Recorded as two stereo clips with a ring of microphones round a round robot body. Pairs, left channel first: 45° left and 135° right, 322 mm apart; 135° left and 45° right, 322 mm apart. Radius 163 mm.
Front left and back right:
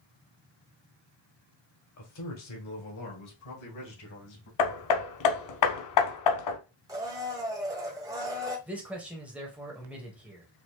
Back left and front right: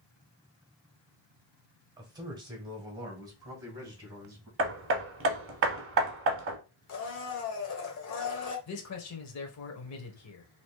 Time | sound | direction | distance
2.0 | a man speaking | 30° left | 1.8 m
4.6 | hammering | 10° left | 0.9 m
6.9 | a blender | 150° left | 1.2 m
8.7 | a man speaking | 140° left | 1.2 m